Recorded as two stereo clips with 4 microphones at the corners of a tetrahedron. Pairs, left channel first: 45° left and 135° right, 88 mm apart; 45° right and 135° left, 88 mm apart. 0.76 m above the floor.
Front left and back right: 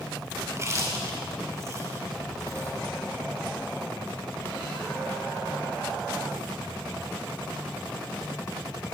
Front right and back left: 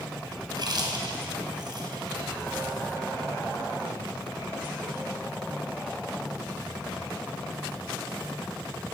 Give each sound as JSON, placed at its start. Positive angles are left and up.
{"t": 0.5, "sound": "chewing", "azimuth_deg": 170, "distance_m": 4.5}